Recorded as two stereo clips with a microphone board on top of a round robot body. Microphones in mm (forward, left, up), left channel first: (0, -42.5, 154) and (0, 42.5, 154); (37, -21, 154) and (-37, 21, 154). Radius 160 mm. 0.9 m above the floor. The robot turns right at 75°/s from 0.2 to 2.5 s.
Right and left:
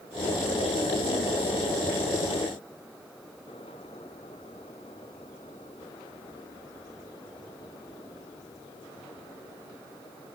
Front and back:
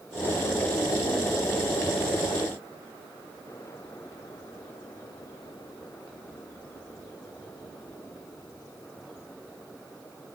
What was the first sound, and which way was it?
Only background noise.